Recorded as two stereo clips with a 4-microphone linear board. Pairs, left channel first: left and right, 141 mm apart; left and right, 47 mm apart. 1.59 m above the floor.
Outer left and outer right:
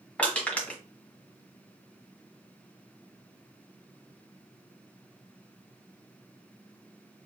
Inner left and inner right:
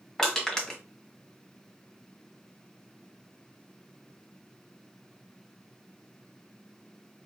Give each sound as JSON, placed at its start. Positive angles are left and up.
{"t": 0.2, "sound": "crushing", "side_deg": 10, "distance_m": 1.6}